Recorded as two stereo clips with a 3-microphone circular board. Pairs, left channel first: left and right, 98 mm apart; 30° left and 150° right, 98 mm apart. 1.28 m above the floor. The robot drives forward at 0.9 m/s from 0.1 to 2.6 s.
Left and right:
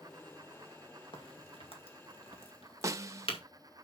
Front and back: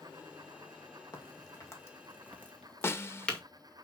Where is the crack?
75° left, 2 m; by 3.4 s 110° left, 2 m.